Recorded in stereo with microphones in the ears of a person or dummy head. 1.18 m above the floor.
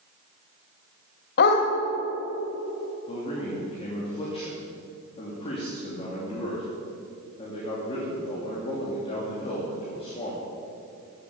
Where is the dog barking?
55° left (ahead or behind), 2.5 m.